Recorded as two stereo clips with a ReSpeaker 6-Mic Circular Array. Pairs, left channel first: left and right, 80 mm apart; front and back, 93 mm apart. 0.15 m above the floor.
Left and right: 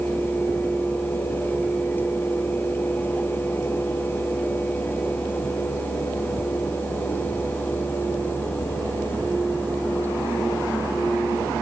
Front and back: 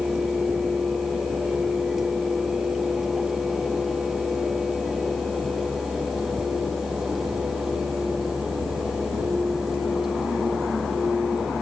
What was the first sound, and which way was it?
Only background noise.